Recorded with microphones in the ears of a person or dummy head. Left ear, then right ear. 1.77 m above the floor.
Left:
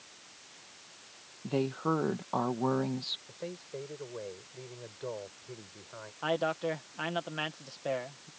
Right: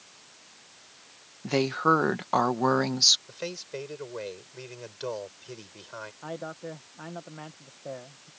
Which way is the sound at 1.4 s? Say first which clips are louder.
Right 8 dB; 60° right (ahead or behind).